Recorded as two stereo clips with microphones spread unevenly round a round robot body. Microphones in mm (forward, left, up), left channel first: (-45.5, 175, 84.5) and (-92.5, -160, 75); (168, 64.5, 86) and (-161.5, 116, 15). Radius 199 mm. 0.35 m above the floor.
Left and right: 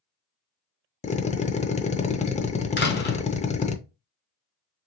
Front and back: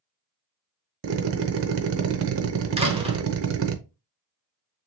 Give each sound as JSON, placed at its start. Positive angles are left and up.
{"t": 1.0, "sound": "a drill", "azimuth_deg": 150, "distance_m": 0.6}
{"t": 2.8, "sound": "a door slam", "azimuth_deg": 125, "distance_m": 1.2}